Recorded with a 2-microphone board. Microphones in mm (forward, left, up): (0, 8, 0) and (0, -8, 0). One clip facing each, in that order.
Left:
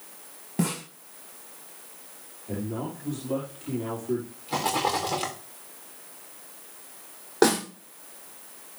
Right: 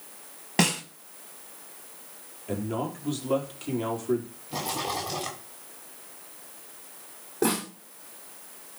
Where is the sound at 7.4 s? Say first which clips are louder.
Left 5 dB; 65° left (ahead or behind), 7 m.